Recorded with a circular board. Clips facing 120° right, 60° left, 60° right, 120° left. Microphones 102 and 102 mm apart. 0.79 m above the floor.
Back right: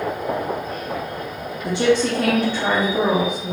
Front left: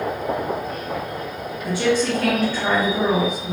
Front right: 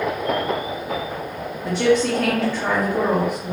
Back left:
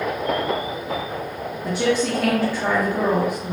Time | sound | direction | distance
1.6 | a woman speaking | 170° right | 0.6 m